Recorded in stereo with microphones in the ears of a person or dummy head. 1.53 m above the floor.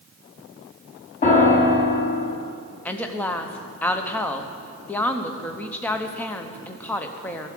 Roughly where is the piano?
Left.